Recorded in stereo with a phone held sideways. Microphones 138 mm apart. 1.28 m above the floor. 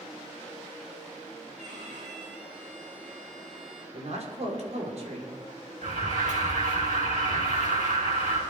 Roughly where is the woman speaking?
Right.